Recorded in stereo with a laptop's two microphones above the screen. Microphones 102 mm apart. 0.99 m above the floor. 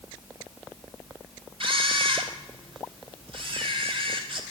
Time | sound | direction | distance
1.6 | a camera shutter | 55° right (ahead or behind) | 1.8 m